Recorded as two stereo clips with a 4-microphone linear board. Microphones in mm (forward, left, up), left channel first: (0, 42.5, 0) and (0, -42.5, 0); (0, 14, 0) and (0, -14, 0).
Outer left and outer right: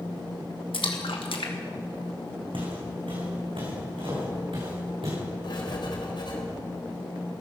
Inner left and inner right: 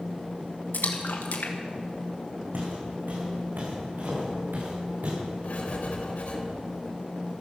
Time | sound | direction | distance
0.7 | a splash | 80° left | 2 m
2.5 | footsteps | 75° right (ahead or behind) | 5.5 m
5.4 | writing | 60° left (ahead or behind) | 3.5 m